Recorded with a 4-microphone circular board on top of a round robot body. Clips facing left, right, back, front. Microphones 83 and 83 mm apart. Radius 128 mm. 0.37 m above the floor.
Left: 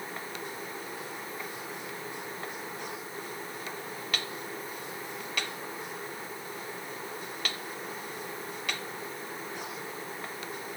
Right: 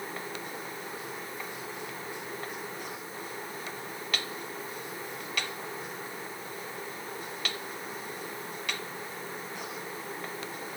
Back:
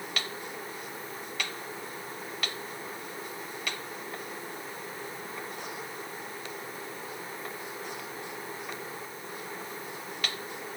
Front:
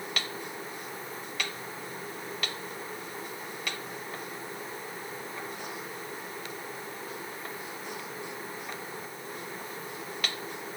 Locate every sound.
Only background noise.